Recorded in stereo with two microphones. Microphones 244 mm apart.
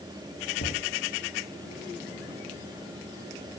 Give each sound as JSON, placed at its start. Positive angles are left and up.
{"t": 0.6, "sound": "knocking", "side_deg": 80, "distance_m": 4.0}